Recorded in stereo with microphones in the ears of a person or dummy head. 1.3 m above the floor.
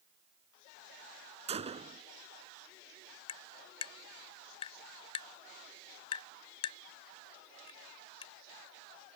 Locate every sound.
1.5 s a gunshot: 40° right (ahead or behind)
3.3 s tapping: 30° left (ahead or behind)